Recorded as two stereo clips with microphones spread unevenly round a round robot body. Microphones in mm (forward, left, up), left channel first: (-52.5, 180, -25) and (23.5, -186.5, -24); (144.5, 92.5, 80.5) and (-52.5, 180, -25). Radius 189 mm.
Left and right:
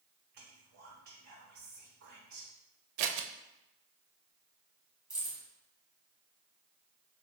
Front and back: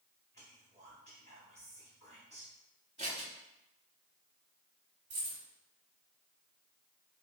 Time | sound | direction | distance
0.3 | whispering | 115° right | 1.3 m
3.0 | scissors | 100° right | 0.6 m
5.1 | keys jangling | 155° right | 2 m